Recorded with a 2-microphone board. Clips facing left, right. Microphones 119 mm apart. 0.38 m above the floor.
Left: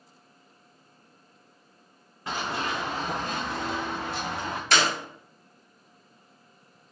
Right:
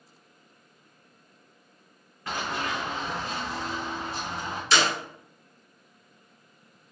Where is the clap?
55° left (ahead or behind), 2.5 m.